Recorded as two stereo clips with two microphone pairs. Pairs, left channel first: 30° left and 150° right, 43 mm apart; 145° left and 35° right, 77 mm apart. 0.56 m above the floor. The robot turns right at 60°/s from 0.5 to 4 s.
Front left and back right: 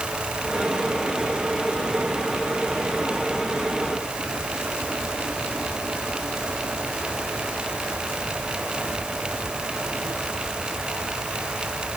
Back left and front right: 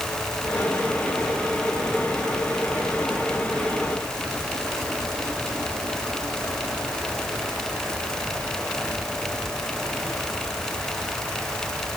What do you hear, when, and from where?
Only background noise.